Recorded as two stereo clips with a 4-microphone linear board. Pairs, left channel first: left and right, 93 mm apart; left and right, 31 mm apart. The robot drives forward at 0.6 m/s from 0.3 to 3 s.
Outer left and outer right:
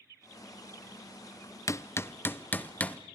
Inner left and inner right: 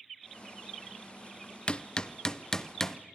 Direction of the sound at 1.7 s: 35° left (ahead or behind).